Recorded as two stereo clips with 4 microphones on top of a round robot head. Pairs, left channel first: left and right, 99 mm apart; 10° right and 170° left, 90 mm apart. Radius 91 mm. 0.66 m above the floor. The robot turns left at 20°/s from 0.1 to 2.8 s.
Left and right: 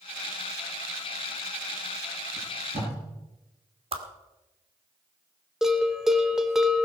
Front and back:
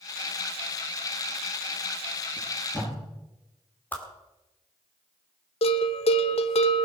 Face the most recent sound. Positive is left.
turn(degrees=-5)